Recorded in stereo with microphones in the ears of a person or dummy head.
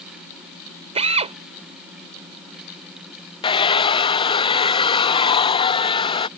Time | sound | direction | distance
0.9 | a drill | 30° right (ahead or behind) | ?
3.4 | a hair dryer | 30° left (ahead or behind) | ?